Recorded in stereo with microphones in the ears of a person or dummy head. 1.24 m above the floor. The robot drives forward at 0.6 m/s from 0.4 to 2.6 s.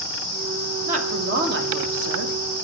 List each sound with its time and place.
0.9 s a woman speaking: 45° right (ahead or behind), 1.4 m; by 2.4 s 80° right, 1.0 m